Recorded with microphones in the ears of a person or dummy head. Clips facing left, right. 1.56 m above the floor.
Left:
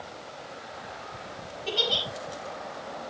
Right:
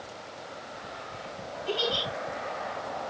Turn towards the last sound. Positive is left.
turn(degrees=80)